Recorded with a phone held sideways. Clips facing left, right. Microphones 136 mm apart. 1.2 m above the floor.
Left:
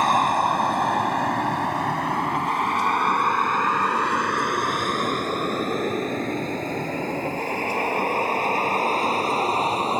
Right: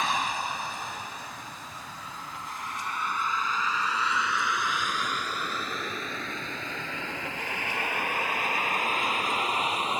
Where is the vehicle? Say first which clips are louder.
Left 10 dB; 50° left (ahead or behind); by 10.0 s 35° left (ahead or behind).